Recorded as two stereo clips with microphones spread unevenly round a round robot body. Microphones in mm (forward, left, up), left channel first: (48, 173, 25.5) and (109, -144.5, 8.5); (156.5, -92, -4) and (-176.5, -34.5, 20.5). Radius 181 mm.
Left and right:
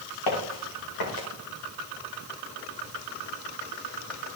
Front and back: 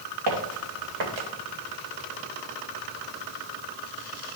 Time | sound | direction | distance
0.3 | footsteps | 135° left | 3 m